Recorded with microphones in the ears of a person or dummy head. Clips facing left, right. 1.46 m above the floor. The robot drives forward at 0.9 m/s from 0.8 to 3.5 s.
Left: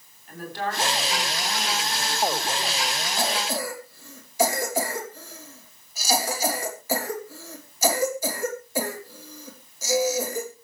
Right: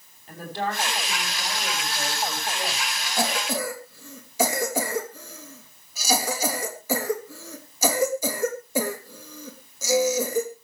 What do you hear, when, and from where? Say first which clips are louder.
0.3 s a woman speaking: right 1 dB; 25° right (ahead or behind), 8 m; by 3.1 s 35° right (ahead or behind), 6 m
3.2 s a cough: right 2 dB; 75° right (ahead or behind), 3 m; by 10.5 s 80° right, 3 m